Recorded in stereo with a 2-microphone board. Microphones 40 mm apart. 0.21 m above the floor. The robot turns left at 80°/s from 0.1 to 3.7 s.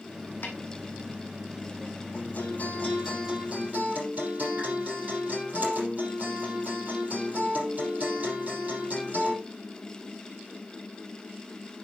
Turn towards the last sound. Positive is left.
turn(degrees=-45)